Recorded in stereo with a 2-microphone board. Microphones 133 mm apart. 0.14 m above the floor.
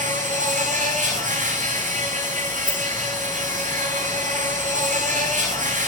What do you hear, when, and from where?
0.0 s an insect: 70° right (ahead or behind), 10 m
2.6 s a rattle: 40° right (ahead or behind), 7 m